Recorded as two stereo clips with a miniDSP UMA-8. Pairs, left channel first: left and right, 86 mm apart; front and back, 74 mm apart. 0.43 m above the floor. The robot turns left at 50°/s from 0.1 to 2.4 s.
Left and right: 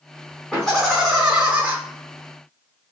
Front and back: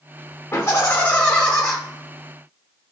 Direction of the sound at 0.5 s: 20° left.